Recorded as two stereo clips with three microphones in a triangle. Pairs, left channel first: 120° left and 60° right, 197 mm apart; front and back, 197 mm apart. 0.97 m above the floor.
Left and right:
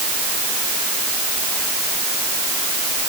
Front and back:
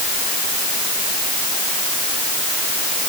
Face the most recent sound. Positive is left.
No sound to turn to.